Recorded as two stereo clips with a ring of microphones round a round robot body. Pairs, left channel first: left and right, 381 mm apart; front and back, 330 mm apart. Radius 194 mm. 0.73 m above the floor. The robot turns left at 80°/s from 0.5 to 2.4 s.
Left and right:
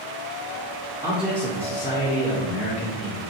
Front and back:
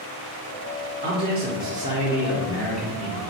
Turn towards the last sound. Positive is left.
turn(degrees=90)